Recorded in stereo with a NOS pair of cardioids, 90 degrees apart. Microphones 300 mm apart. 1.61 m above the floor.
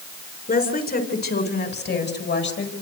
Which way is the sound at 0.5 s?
30° left.